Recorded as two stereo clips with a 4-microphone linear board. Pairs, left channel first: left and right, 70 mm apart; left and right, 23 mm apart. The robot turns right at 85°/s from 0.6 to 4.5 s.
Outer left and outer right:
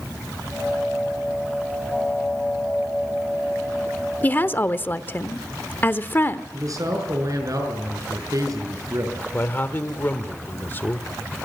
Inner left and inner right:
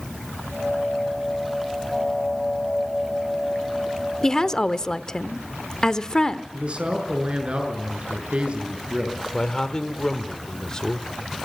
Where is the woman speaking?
25° left (ahead or behind), 1.0 m; by 6.4 s 30° left (ahead or behind), 1.0 m.